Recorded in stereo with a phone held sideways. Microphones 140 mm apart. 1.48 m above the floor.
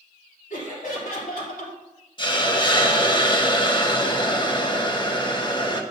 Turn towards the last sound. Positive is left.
turn(degrees=35)  # may be behind; listen again after turning